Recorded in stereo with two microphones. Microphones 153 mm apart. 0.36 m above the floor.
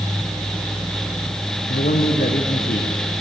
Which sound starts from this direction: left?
A man speaking, at 1.7 s.